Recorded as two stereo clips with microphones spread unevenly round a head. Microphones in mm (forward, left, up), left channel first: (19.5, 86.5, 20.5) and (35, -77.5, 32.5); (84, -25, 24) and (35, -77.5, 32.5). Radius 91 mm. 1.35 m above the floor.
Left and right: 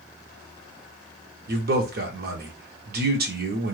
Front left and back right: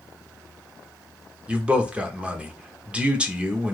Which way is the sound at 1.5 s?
55° right.